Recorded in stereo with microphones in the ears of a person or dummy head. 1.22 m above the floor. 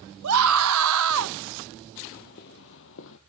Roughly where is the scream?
Right.